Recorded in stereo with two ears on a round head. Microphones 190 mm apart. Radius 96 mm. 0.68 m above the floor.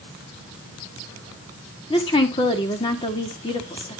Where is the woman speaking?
25° left (ahead or behind), 1.5 m.